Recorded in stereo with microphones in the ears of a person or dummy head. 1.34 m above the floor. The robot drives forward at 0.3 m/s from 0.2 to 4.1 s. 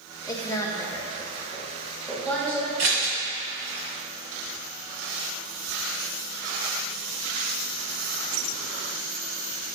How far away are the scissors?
About 1.5 m.